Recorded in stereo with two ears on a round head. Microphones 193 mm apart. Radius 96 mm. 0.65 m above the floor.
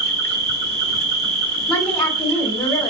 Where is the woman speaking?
20° left (ahead or behind), 1.3 m.